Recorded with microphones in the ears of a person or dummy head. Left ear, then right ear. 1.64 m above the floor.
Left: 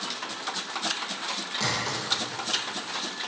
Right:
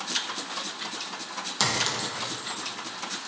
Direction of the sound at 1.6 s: 40° right (ahead or behind).